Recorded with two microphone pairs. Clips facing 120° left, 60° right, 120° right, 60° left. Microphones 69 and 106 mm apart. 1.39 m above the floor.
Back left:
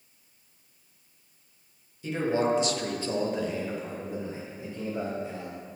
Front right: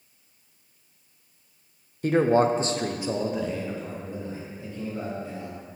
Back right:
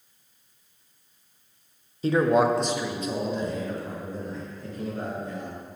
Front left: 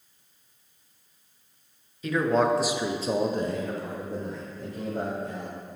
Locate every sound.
2.0 s a man speaking: 75° right, 0.7 m; by 5.5 s 55° left, 2 m